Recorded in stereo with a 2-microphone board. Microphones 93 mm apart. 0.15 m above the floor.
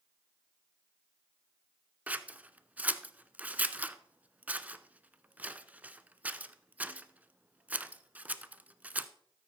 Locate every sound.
2.1 s scissors: 15° right (ahead or behind), 0.5 m